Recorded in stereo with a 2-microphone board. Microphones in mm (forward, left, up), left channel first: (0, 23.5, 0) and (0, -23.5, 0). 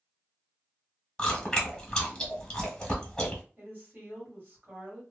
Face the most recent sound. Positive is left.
turn(degrees=-45)  # may be behind; listen again after turning